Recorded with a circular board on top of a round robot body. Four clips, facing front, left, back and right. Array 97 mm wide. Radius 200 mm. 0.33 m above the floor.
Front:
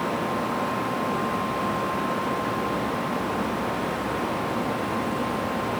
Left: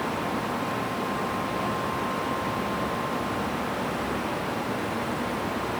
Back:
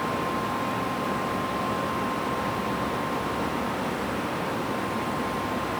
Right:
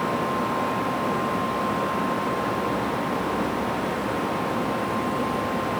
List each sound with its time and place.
Only background noise.